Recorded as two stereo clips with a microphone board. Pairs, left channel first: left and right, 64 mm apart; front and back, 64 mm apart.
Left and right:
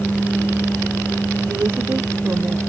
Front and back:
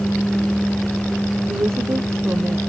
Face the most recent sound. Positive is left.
turn(degrees=-140)